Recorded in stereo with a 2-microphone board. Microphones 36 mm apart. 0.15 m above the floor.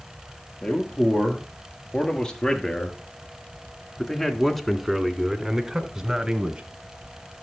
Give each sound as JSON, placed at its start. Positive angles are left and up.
{"t": 0.6, "sound": "a man speaking", "side_deg": 20, "distance_m": 3.5}